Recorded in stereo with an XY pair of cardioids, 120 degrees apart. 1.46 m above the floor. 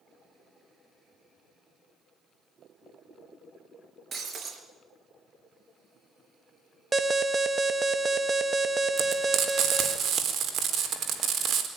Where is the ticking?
I don't hear ticking.